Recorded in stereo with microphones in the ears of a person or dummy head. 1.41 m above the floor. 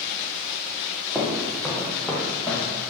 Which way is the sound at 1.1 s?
Centre (ahead or behind).